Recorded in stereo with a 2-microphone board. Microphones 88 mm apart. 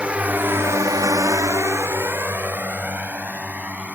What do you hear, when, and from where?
0.0 s a drone: 15° right (ahead or behind)